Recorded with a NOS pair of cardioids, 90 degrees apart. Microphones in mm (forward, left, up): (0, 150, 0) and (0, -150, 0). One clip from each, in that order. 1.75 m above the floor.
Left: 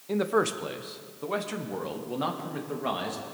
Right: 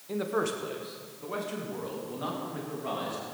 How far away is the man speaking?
About 1.2 m.